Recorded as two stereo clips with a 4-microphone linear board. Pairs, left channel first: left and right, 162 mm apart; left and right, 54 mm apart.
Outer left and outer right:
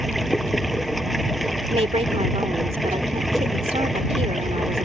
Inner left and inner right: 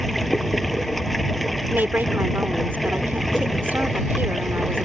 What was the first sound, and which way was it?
Running water, centre (ahead or behind).